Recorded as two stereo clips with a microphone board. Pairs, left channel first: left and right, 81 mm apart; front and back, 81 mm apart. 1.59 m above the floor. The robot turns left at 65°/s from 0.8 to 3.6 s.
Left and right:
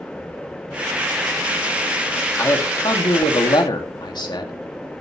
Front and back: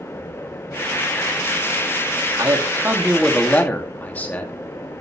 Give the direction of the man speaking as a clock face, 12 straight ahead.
7 o'clock.